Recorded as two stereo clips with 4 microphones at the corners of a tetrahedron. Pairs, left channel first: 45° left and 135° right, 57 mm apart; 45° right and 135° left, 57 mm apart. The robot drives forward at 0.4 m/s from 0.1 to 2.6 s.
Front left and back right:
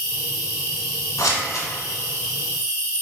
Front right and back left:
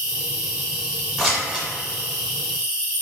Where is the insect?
150° right, 1.5 m; by 3.0 s 160° right, 2.5 m.